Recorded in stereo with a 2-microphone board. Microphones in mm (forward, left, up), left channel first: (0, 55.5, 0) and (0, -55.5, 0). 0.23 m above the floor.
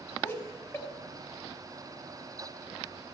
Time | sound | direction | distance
0.2 | laughter | 20° left (ahead or behind) | 1.6 m